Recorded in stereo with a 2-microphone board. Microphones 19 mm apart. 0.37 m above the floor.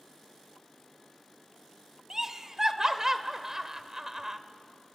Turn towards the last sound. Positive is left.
turn(degrees=-25)  # may be behind; listen again after turning